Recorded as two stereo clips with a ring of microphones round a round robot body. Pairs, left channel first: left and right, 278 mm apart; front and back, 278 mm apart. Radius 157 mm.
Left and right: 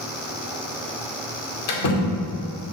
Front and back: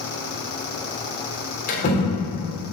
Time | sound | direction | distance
1.7 | a door slam | 65° left | 2.5 m